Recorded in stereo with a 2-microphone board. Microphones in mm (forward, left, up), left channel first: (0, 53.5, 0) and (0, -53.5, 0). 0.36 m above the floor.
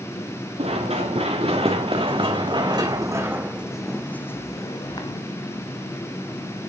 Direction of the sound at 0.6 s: 65° right (ahead or behind).